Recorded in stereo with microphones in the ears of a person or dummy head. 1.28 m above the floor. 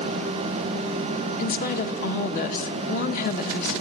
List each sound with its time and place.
1.4 s a woman speaking: 50° left (ahead or behind), 1.3 m